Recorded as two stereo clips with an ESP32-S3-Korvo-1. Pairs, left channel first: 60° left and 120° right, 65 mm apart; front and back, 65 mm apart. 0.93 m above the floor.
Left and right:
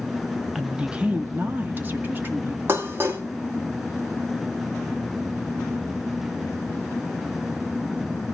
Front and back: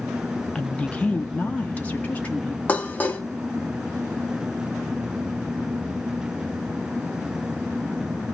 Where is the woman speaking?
50° right, 0.6 m; by 2.6 s 65° right, 1.6 m.